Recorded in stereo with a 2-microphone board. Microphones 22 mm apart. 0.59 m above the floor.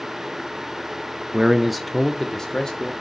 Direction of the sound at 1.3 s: 25° right (ahead or behind).